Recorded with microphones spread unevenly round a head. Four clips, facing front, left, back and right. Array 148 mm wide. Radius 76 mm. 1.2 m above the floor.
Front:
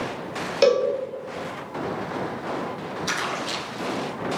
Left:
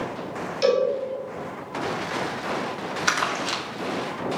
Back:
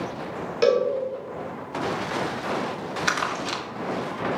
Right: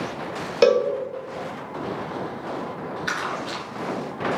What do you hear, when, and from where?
0.6 s a cowbell: 65° right, 1.4 m
3.1 s crumpling: 120° left, 1.8 m